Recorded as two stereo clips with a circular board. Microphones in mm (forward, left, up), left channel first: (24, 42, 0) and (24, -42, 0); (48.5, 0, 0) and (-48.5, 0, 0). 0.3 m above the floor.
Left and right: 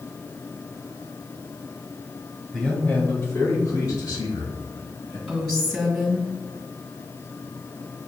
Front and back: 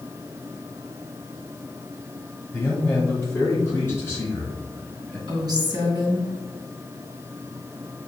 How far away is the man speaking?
About 1.1 m.